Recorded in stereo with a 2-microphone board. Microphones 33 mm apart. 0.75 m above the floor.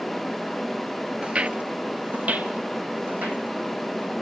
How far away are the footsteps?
About 0.8 m.